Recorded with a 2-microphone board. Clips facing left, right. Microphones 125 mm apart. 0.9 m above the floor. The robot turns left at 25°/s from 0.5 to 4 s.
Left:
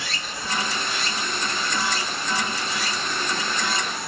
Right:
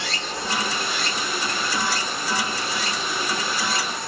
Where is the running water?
95° right, 1.1 m; by 4.1 s 175° left, 1.1 m.